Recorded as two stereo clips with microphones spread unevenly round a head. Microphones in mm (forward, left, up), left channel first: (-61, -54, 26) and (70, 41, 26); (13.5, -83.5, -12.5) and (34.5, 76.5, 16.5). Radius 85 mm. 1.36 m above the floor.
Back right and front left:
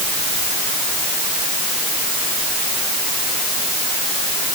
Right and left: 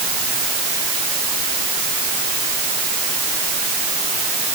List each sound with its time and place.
Only background noise.